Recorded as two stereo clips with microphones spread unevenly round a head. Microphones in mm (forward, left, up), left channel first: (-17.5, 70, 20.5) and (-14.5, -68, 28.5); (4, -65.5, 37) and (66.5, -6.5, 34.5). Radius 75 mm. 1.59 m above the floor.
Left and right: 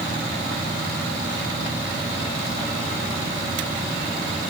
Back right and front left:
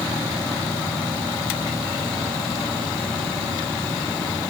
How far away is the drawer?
I don't hear a drawer.